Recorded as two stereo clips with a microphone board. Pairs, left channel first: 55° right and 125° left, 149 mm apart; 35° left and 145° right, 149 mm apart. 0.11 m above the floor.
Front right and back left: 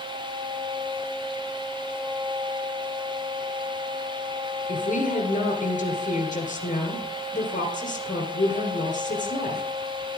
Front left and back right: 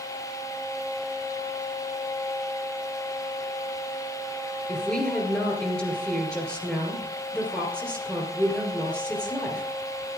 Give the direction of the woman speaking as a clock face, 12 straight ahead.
2 o'clock.